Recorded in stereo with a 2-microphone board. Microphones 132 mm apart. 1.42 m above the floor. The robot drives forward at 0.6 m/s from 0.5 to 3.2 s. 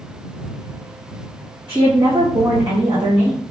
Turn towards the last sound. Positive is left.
turn(degrees=-40)  # may be behind; listen again after turning